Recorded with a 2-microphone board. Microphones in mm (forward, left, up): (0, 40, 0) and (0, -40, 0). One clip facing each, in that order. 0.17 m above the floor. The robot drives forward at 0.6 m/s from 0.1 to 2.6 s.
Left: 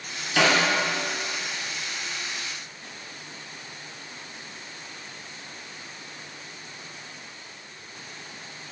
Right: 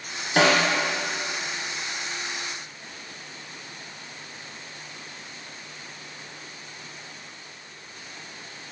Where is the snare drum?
45° right (ahead or behind), 0.8 m; by 0.7 s 35° right (ahead or behind), 1.0 m.